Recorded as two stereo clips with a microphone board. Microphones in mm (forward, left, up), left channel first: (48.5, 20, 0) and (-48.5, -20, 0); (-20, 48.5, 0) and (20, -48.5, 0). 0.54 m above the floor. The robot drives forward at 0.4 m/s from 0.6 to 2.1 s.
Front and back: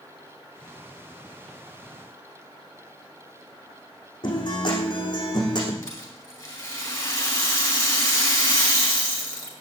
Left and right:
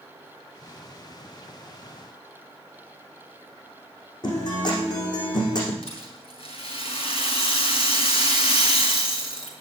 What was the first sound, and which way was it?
A guitar, 65° left.